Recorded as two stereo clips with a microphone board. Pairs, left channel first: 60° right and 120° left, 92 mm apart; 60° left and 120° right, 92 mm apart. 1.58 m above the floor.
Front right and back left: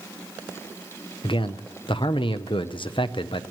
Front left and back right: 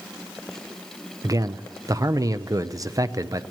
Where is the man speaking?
75° right, 0.7 m.